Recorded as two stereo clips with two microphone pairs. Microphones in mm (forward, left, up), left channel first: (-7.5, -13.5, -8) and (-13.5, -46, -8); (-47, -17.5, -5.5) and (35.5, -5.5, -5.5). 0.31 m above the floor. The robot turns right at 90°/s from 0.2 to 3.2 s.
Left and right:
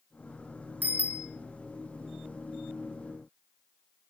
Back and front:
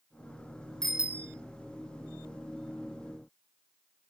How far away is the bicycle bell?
About 2.5 m.